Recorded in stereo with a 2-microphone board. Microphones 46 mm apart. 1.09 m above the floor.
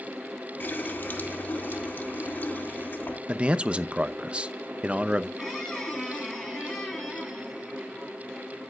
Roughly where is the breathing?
I don't hear breathing.